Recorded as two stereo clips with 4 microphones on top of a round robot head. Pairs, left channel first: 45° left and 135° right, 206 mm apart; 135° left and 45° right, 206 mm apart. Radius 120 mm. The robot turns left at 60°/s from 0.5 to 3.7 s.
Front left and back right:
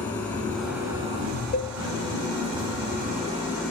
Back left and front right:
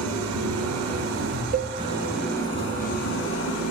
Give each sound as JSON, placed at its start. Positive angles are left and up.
{"t": 0.0, "sound": "an engine running", "azimuth_deg": -35, "distance_m": 4.5}
{"t": 1.5, "sound": "a cowbell", "azimuth_deg": 5, "distance_m": 1.0}